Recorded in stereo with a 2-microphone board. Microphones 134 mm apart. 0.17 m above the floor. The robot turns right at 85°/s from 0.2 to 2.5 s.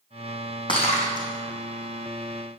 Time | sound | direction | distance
0.7 | breaking glass | 35° left (ahead or behind) | 4.5 m